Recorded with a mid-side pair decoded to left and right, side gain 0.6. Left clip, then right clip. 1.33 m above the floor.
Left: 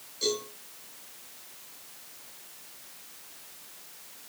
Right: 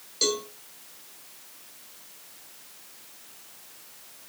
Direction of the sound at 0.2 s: 60° right.